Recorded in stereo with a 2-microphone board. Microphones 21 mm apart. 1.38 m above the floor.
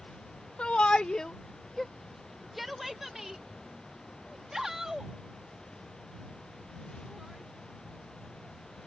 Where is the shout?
75° left (ahead or behind); by 8.9 s 30° right (ahead or behind).